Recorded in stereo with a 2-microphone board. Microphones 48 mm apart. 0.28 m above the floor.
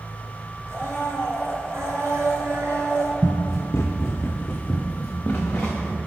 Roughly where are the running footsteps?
Left.